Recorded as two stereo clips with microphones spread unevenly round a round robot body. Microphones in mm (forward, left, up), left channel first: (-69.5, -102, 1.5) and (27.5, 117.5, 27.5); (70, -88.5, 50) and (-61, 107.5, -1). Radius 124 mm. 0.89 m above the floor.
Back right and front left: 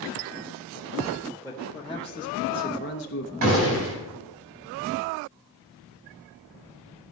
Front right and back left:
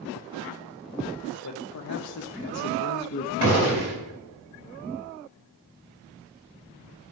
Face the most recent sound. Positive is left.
turn(degrees=100)